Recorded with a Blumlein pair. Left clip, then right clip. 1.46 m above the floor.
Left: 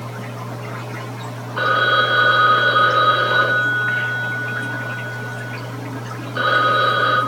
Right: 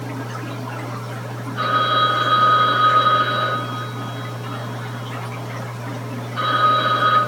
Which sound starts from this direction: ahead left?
A phone ringing, at 1.6 s.